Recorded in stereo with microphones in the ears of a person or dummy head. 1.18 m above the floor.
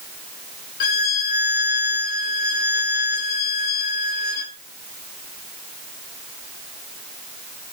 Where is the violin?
45° left (ahead or behind), 0.6 m.